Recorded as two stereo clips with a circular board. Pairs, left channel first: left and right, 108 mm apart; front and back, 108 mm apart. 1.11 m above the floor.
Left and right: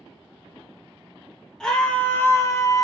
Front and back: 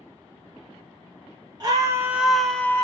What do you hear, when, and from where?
1.6 s a scream: 170° left, 0.6 m; by 2.8 s 55° left, 0.6 m